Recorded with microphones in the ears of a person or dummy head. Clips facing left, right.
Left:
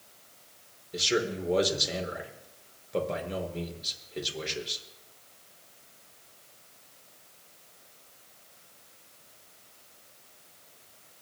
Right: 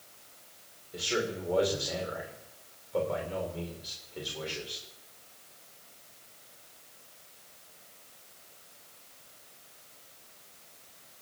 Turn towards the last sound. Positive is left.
turn(degrees=30)  # may be behind; listen again after turning